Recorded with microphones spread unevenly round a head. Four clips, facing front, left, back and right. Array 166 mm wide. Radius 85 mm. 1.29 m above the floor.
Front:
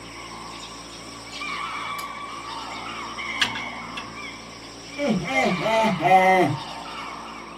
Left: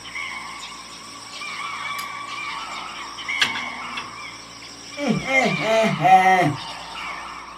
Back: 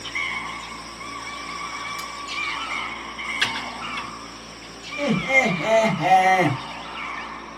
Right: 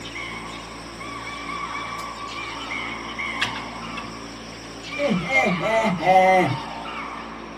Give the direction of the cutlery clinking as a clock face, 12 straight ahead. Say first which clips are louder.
Even, front 1 dB; 9 o'clock.